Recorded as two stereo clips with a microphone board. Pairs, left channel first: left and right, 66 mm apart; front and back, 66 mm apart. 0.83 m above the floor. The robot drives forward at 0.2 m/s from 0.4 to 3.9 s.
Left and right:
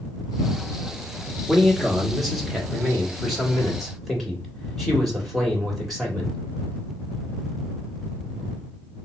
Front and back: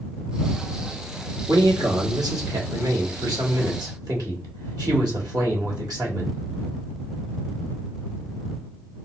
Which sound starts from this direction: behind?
A man speaking, at 1.5 s.